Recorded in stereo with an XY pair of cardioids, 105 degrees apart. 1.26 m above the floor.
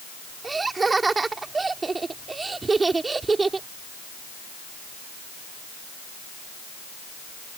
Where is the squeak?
No squeak in this recording.